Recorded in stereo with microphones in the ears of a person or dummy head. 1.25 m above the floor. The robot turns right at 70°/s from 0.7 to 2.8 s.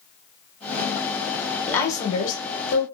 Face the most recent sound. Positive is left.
turn(degrees=80)